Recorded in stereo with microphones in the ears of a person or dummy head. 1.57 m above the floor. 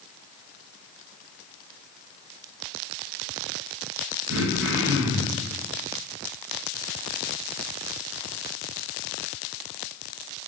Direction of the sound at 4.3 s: 65° right (ahead or behind).